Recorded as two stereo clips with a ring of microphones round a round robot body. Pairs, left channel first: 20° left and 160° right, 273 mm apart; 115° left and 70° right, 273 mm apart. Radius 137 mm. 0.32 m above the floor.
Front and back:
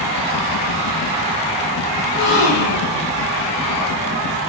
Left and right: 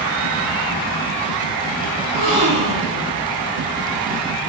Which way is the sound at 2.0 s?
Straight ahead.